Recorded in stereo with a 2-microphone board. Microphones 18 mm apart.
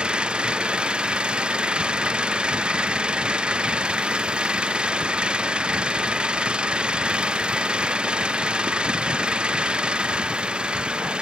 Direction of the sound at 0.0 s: 65° right (ahead or behind).